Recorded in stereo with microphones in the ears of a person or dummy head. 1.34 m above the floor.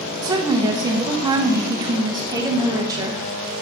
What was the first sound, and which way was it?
A woman speaking, 20° right (ahead or behind).